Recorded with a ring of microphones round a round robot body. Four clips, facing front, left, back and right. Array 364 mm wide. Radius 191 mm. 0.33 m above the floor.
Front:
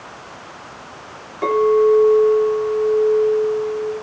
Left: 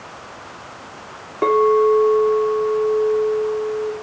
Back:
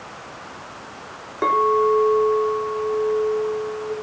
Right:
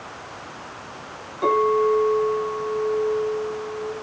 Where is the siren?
No siren in this recording.